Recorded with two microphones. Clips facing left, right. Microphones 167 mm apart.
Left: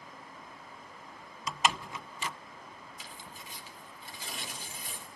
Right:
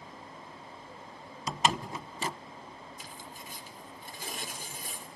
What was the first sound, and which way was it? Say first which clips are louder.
A door slam: right 2 dB; 40° right (ahead or behind).